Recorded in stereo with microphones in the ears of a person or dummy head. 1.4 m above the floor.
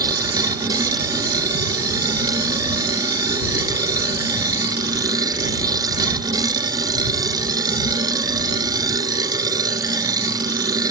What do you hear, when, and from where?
0.0 s a machine running: 20° right (ahead or behind)